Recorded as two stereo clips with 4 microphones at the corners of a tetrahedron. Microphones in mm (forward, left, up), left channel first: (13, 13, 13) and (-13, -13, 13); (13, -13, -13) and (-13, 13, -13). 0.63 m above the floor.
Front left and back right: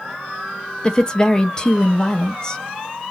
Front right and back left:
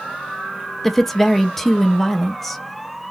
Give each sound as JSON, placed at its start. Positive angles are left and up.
{"t": 0.8, "sound": "a woman speaking", "azimuth_deg": 35, "distance_m": 0.5}